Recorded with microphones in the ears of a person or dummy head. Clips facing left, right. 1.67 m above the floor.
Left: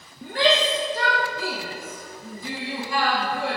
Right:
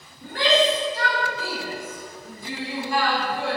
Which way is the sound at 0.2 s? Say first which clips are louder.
Right 1 dB; 70° left (ahead or behind).